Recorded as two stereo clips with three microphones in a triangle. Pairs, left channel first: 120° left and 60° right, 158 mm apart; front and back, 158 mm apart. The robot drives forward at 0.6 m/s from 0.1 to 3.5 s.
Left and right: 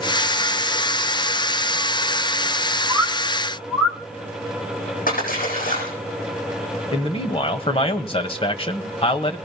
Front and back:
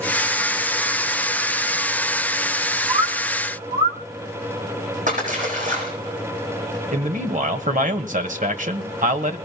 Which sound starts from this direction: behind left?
A splash, at 5.1 s.